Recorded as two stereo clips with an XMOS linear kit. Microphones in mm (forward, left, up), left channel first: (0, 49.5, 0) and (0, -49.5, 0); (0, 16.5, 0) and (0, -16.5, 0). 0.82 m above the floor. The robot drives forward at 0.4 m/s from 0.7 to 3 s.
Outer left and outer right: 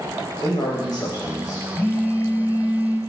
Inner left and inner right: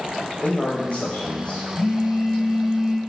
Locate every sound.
0.4 s a man speaking: 45° left (ahead or behind), 1.2 m; by 1.6 s 40° left (ahead or behind), 1.4 m
1.8 s a phone buzzing: 20° left (ahead or behind), 0.6 m; by 3.0 s 10° left (ahead or behind), 1.1 m